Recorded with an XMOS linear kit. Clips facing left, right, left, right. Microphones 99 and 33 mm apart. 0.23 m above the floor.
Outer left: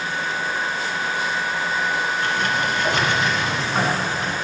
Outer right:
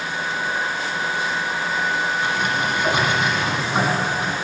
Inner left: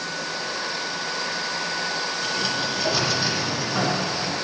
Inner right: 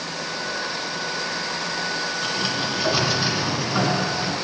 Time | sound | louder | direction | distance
2.2 | a sliding door | even, even | 10° right (ahead or behind) | 1.6 m